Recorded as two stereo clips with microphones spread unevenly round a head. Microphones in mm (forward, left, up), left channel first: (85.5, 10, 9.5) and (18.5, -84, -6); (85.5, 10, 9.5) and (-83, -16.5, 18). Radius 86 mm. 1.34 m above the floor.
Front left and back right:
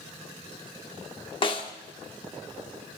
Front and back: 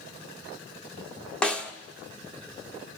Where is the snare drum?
95° left, 1.4 m.